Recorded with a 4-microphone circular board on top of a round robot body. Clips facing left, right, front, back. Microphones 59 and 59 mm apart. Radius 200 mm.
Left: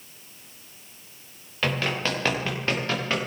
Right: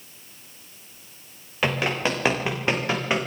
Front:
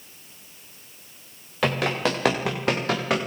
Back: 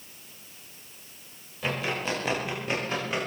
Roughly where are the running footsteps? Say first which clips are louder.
Right 2 dB, front 6 dB; ahead.